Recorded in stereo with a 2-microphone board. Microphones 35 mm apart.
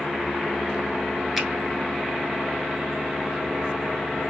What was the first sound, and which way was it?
A finger snap, 5° right (ahead or behind).